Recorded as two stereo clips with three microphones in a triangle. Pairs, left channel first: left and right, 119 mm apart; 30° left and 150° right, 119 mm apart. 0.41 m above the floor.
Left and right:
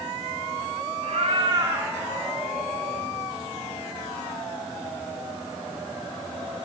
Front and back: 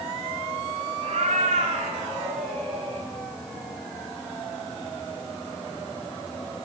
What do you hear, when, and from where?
1.0 s a cat meowing: 115° right, 1.1 m; by 3.1 s 165° left, 2 m